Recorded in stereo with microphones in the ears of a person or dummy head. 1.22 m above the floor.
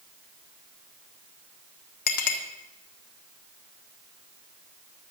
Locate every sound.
2.1 s a clink: 45° left (ahead or behind), 1.6 m